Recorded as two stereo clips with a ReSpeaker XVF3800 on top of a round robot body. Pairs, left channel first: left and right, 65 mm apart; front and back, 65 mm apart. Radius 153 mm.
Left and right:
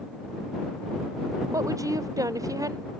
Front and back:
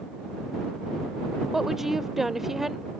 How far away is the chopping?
I don't hear chopping.